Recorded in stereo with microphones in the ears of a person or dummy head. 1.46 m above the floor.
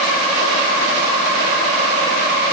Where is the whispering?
No whispering in this recording.